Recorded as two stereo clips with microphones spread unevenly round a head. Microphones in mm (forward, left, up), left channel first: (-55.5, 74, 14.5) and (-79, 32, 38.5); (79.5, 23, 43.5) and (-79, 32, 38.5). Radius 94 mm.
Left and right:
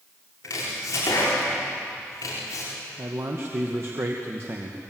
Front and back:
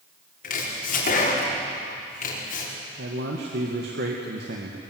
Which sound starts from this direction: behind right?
A man speaking, at 3.0 s.